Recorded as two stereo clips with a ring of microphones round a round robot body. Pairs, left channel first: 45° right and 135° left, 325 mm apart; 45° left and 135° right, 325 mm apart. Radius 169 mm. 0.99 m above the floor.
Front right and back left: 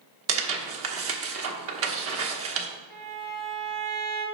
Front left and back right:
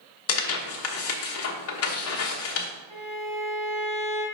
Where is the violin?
130° right, 3.5 m.